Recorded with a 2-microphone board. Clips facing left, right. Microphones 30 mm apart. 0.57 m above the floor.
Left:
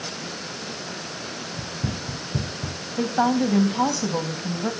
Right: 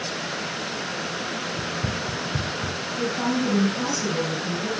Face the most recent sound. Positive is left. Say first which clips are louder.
# left 4 dB
turn(degrees=75)  # may be behind; listen again after turning